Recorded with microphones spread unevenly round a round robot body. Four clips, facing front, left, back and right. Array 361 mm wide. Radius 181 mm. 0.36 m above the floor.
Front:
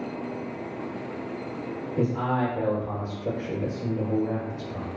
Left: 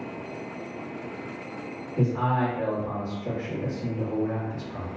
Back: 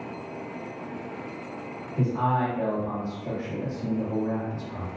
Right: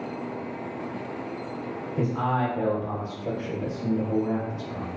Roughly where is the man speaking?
Ahead.